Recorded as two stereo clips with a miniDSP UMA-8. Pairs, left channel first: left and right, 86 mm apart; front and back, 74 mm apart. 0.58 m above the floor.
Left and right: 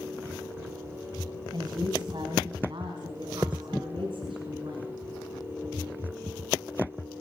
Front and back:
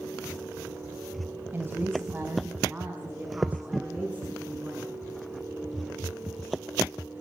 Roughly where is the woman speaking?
Behind right.